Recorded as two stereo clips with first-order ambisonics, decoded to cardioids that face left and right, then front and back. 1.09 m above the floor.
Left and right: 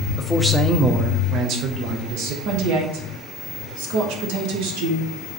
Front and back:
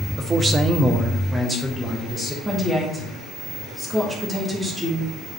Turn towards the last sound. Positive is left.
turn(degrees=-100)